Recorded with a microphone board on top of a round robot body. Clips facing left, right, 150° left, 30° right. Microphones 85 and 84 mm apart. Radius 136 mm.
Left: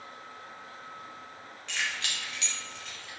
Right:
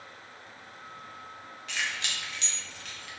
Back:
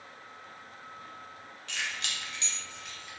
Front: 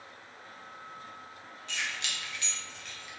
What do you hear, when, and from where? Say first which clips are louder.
1.7 s keys jangling: even, even; 175° right, 0.8 m; by 3.1 s 120° right, 0.9 m